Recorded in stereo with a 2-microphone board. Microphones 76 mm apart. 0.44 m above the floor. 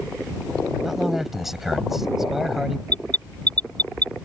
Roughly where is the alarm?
Right.